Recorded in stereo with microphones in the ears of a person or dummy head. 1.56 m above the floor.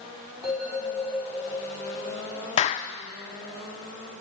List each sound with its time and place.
0.4 s a bell: 5° left (ahead or behind), 4.5 m
2.6 s a clap: 40° left (ahead or behind), 0.7 m